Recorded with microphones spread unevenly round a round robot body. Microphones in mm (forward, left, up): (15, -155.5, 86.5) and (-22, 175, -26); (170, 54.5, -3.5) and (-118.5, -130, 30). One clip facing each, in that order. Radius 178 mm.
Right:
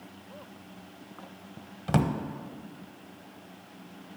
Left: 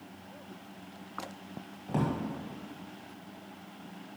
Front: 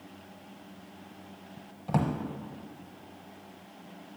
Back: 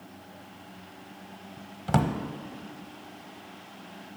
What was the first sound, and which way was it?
A drawer, 95° right.